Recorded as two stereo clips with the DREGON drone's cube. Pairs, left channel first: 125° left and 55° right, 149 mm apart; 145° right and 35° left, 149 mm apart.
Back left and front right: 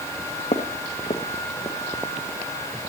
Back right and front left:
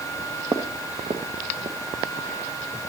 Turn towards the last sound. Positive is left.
turn(degrees=65)